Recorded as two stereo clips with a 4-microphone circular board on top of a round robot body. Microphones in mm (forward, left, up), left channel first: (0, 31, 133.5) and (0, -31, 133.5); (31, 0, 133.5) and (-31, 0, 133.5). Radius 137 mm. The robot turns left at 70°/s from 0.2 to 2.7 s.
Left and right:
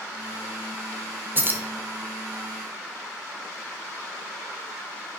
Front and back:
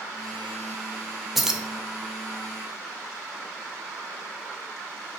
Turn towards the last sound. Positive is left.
turn(degrees=170)